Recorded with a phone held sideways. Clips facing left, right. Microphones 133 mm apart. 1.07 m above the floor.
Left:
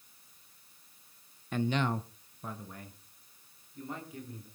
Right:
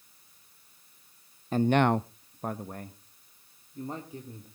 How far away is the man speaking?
About 0.6 m.